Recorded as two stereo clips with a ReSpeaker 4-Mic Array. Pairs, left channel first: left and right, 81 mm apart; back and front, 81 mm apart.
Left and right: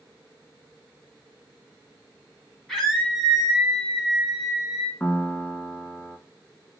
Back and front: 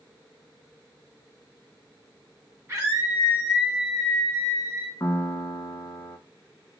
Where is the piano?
145° left, 0.5 m.